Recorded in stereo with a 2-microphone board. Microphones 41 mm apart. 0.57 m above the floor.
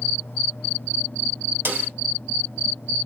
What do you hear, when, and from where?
1.6 s a snare drum: 75° right (ahead or behind), 1.8 m